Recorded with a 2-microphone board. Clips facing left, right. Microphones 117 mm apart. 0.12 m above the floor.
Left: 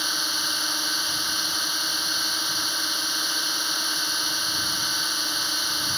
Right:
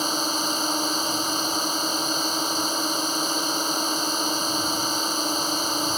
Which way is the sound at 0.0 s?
40° right (ahead or behind).